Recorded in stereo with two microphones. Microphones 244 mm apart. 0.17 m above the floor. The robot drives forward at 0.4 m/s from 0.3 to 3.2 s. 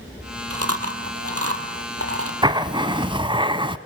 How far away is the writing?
About 1.2 m.